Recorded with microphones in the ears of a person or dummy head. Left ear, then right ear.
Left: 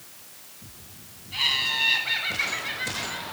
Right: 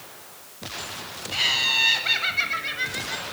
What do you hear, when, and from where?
1.3 s laughter: 80° right, 8.5 m